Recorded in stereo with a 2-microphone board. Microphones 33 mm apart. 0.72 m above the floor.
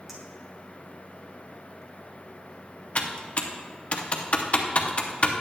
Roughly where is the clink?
Centre.